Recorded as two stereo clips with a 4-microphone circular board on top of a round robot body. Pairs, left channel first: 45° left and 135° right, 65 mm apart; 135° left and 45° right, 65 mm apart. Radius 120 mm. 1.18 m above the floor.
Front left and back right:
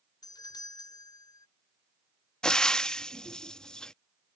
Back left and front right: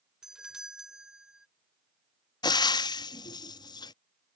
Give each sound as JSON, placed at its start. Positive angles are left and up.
{"t": 0.2, "sound": "a doorbell", "azimuth_deg": 35}
{"t": 2.4, "sound": "frying", "azimuth_deg": 125}